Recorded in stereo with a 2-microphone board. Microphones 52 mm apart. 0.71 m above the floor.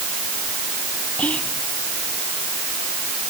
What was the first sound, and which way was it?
Whispering, 25° left (ahead or behind).